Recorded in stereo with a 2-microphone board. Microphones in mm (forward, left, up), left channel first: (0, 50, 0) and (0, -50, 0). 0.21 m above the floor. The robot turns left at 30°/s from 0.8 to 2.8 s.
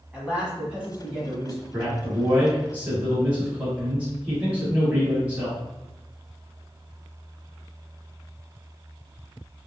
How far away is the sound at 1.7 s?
About 1.4 m.